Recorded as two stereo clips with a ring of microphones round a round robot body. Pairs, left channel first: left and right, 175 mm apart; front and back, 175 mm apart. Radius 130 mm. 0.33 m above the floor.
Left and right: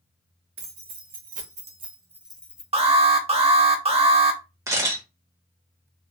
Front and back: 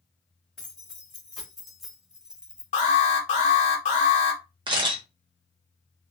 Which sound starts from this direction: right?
Keys jangling, at 0.6 s.